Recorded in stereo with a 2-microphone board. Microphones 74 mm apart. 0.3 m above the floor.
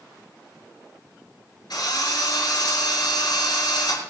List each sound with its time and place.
1.7 s a drill: 70° left (ahead or behind), 6 m